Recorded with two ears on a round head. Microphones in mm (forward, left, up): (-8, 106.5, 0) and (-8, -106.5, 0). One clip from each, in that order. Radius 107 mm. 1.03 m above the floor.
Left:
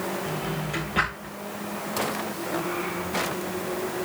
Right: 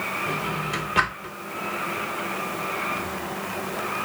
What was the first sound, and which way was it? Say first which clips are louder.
A drawer: right 4 dB; 30° right (ahead or behind).